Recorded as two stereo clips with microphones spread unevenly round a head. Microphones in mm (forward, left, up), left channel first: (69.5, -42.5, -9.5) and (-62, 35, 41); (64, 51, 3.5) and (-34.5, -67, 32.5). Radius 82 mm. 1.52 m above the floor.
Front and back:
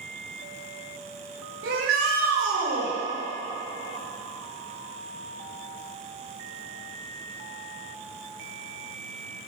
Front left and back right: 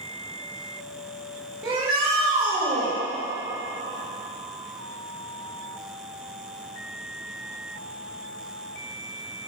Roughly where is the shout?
Behind left.